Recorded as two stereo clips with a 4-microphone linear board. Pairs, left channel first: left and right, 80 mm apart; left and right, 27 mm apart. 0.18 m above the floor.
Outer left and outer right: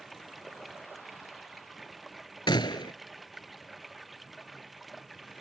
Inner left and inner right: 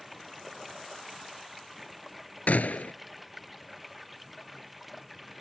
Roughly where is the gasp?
No gasp in this recording.